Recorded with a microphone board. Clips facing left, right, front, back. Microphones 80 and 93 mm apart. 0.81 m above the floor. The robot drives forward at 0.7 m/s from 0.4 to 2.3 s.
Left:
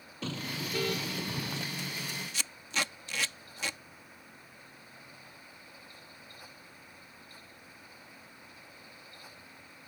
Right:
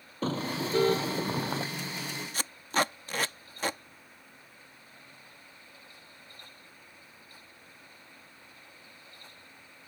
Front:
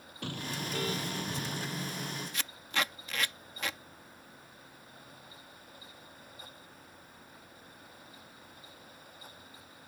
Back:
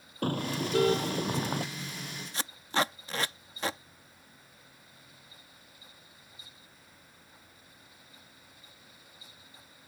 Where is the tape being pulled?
125° right.